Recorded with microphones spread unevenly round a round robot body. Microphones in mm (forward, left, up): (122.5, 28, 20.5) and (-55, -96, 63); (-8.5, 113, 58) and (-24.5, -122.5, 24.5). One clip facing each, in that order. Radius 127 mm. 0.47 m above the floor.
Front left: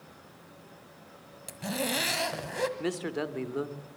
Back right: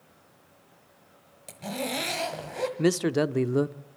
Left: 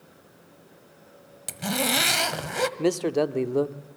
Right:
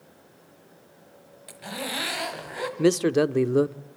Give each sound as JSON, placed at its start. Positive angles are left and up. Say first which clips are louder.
{"t": 1.5, "sound": "a zipper", "louder": "even, left 7 dB", "azimuth_deg": 115, "distance_m": 1.7}
{"t": 2.8, "sound": "a man speaking", "louder": "back right 8 dB, right 4 dB", "azimuth_deg": -140, "distance_m": 1.0}